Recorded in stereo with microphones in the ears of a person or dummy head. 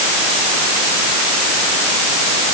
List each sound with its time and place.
Only background noise.